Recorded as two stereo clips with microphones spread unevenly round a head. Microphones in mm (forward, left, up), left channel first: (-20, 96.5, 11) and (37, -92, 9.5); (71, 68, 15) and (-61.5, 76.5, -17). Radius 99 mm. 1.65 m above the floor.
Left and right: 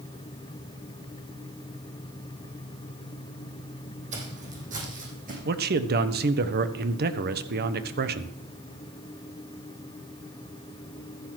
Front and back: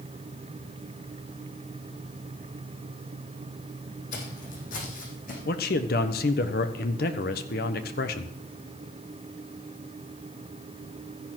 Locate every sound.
4.1 s footsteps: 20° right, 5 m; by 5.3 s 25° right, 6.5 m
5.5 s a man speaking: 30° right, 1.1 m